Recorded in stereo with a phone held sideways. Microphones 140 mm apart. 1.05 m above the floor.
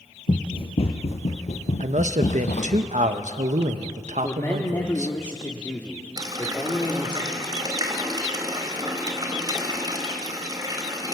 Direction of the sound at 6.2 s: 30° right (ahead or behind).